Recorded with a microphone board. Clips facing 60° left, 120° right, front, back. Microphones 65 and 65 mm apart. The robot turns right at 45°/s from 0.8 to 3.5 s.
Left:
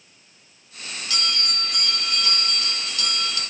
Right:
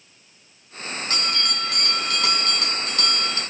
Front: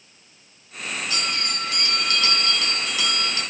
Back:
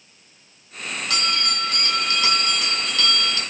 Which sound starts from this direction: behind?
A bell, at 1.1 s.